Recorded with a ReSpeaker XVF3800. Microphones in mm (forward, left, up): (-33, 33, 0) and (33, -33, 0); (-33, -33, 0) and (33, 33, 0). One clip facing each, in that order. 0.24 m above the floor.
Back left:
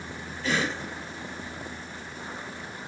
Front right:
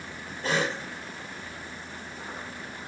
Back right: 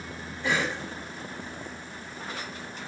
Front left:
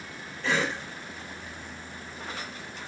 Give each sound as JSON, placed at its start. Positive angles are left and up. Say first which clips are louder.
{"t": 0.4, "sound": "a cough", "louder": "even, even", "azimuth_deg": -65, "distance_m": 2.5}